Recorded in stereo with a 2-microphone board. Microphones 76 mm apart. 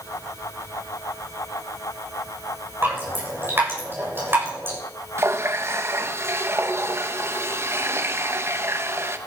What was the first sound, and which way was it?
Dripping, 30° right (ahead or behind).